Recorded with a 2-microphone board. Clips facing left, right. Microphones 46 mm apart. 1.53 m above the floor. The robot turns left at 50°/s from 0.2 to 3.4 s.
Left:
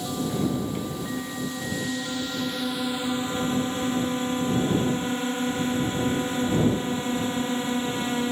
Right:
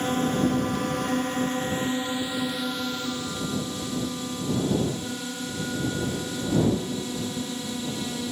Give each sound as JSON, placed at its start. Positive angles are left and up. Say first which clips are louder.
{"t": 0.0, "sound": "a drone", "louder": "right 3 dB", "azimuth_deg": -60}